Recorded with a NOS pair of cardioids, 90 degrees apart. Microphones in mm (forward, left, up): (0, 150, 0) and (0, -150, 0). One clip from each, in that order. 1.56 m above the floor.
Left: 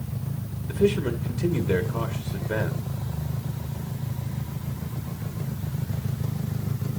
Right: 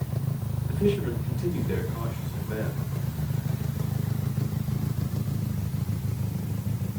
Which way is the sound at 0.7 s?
50° left.